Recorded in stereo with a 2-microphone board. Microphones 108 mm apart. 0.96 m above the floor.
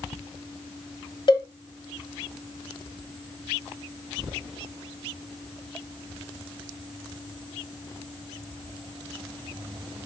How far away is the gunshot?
I don't hear a gunshot.